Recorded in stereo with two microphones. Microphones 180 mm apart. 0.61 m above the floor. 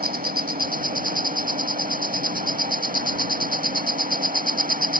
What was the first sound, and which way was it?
An insect, 50° right (ahead or behind).